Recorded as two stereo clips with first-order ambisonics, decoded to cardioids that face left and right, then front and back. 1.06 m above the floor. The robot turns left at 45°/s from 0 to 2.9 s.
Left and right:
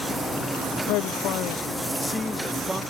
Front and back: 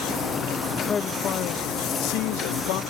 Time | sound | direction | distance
0.9 | a man speaking | 70° left | ?